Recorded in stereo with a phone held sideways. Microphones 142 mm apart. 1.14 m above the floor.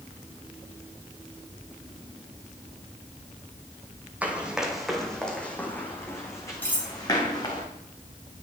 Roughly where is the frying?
I don't hear frying.